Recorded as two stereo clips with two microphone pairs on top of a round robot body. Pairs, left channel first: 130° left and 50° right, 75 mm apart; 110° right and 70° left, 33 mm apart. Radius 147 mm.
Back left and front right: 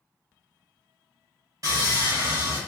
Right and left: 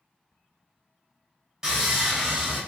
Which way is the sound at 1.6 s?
5° right.